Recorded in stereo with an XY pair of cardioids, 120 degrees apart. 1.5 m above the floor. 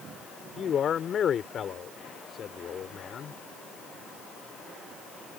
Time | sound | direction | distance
0.6 | a man speaking | 45° left | ?